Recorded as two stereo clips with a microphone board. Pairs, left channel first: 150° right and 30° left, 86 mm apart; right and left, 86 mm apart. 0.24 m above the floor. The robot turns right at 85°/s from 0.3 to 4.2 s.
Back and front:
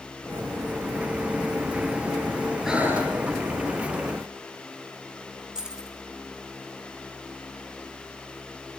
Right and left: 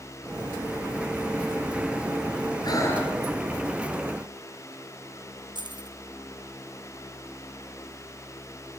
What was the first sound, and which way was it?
Breathing, 55° right.